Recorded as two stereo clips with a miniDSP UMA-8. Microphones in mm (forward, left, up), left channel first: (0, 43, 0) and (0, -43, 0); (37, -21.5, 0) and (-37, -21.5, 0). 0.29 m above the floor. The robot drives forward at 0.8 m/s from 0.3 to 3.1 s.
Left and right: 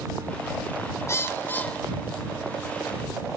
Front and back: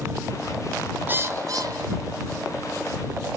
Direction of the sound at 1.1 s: 130° left.